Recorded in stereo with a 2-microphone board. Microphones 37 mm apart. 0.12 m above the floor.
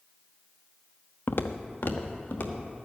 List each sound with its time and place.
1.3 s footsteps: 65° left (ahead or behind), 0.8 m; by 2.8 s 60° left (ahead or behind), 2.5 m